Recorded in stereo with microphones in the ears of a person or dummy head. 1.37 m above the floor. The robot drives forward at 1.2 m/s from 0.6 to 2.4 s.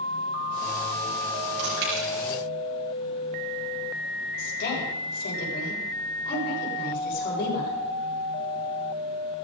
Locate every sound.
1.6 s chewing: 80° right, 7.5 m; by 2.1 s 85° right, 7 m
4.4 s a woman speaking: 60° left (ahead or behind), 7 m